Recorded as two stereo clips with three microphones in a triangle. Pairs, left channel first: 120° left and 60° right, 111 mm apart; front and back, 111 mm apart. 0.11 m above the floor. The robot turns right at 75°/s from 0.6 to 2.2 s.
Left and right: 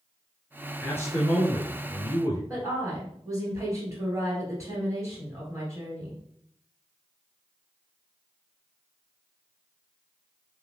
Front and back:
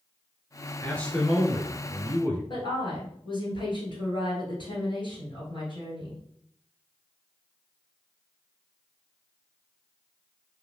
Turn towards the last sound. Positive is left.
turn(degrees=-10)